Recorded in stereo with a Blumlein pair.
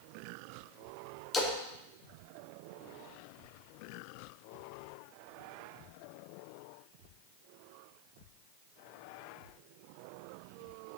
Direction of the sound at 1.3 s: 20° left.